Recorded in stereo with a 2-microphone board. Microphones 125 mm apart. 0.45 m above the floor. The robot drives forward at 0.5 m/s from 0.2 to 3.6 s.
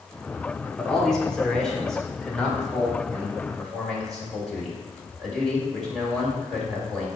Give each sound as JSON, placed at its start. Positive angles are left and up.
{"t": 0.8, "sound": "a man speaking", "side_deg": 5, "distance_m": 1.3}